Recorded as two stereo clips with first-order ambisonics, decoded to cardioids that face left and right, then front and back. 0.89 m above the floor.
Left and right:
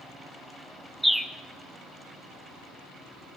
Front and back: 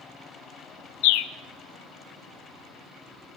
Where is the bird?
Straight ahead, 0.5 m.